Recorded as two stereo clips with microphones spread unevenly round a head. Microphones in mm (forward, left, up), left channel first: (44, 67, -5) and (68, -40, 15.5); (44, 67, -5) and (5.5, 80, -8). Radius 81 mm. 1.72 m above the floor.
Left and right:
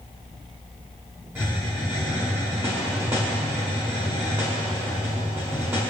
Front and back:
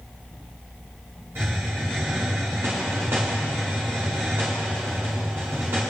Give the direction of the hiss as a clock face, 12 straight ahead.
5 o'clock.